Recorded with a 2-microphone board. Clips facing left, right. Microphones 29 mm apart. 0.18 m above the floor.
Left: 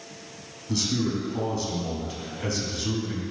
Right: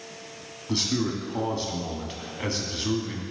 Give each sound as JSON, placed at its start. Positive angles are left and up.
{"t": 0.7, "sound": "a man speaking", "side_deg": -25, "distance_m": 1.1}